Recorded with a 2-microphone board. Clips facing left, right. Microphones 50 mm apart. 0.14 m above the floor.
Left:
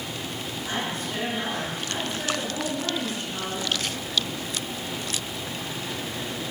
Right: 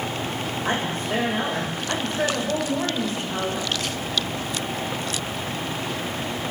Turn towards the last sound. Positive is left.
turn(degrees=-50)  # may be behind; listen again after turning